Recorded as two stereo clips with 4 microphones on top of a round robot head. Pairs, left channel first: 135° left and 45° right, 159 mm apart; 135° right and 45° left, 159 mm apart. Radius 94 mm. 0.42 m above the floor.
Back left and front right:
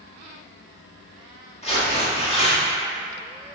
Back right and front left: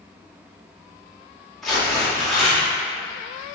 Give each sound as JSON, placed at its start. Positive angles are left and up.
{"t": 1.6, "sound": "tearing paper", "azimuth_deg": 135, "distance_m": 1.6}